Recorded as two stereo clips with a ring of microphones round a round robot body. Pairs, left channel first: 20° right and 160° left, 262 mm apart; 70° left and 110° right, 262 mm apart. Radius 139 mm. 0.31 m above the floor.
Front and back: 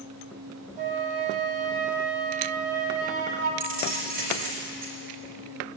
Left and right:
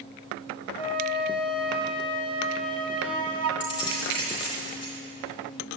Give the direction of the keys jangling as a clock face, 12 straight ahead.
9 o'clock.